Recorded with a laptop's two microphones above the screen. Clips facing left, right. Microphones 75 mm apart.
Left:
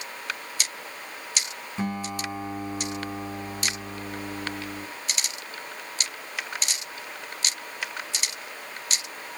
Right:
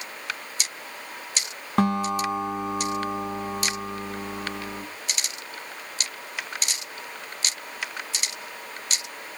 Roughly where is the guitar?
Right.